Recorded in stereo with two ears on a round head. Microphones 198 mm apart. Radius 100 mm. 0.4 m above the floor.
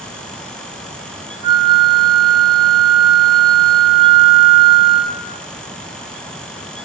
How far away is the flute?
About 2.5 m.